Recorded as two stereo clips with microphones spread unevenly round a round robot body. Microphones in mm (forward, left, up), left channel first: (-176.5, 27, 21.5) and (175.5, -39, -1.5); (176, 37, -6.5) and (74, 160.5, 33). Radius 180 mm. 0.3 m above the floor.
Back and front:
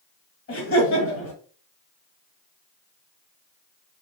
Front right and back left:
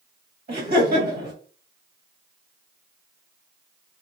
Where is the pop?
I don't hear a pop.